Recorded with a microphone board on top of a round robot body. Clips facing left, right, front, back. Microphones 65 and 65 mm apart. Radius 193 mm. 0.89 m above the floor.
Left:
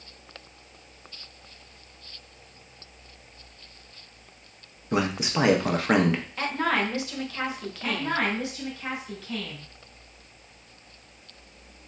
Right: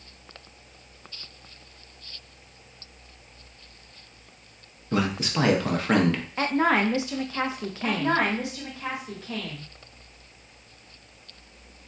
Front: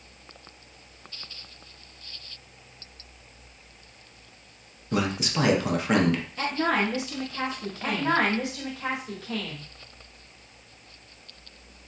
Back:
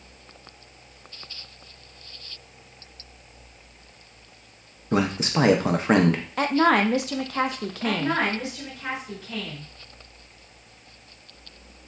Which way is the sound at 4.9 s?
155° left.